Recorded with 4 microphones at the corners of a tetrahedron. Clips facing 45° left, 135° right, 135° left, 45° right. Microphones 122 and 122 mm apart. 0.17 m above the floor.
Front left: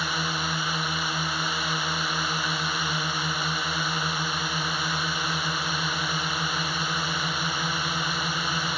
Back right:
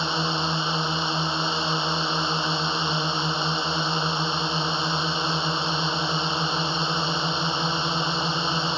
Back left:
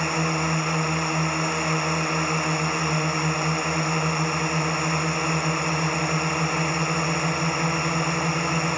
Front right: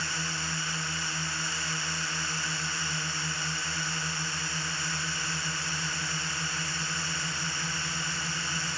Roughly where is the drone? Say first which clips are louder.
Back right 4 dB, back left 12 dB; behind.